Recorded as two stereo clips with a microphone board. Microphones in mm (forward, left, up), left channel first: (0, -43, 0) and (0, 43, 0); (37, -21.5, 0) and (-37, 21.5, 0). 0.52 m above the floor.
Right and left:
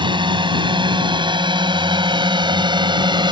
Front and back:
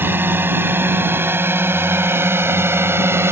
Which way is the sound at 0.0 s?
85° left.